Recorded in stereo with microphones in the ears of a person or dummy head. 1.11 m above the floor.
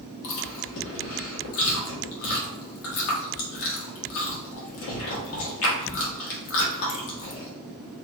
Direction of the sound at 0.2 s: 65° left (ahead or behind).